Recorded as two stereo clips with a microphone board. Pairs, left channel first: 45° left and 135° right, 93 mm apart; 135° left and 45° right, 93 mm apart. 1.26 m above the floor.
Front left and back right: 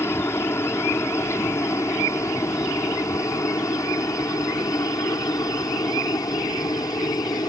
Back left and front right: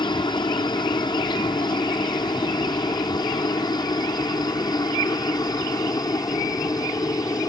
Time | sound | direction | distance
0.0 | a helicopter | 105° left | ?